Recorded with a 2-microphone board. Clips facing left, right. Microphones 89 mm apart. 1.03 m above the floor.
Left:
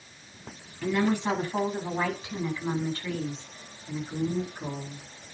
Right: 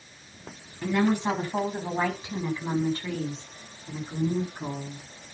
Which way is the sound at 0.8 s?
15° right (ahead or behind).